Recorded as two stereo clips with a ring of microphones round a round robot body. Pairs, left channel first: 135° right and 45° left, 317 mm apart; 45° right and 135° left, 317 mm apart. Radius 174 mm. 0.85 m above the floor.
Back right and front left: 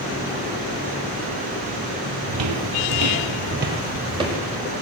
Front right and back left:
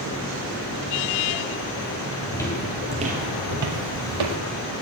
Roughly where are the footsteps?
Ahead left.